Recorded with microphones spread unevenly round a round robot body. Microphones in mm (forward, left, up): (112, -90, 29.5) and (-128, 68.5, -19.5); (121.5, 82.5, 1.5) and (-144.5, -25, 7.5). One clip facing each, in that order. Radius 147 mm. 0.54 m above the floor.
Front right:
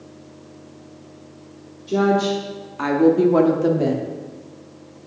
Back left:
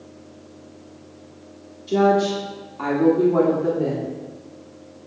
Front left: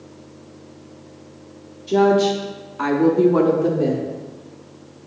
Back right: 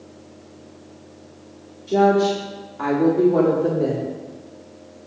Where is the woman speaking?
80° left, 0.9 m; by 4.1 s 50° right, 1.3 m.